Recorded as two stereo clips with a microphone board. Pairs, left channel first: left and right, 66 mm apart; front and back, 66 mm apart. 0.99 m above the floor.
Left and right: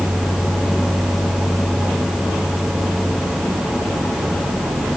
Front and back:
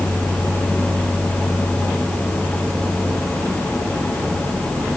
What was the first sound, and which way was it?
Only background noise.